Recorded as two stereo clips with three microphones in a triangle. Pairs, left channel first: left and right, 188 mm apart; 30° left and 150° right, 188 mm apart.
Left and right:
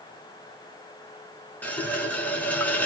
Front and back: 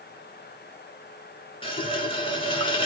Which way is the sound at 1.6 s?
20° left.